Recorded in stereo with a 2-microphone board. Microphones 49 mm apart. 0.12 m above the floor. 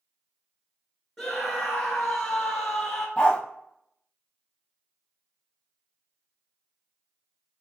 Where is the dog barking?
20° left (ahead or behind), 0.9 m.